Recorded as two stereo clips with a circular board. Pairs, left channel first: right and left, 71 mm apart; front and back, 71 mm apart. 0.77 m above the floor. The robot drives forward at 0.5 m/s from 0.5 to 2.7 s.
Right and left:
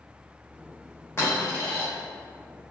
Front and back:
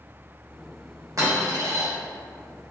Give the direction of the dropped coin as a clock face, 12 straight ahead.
5 o'clock.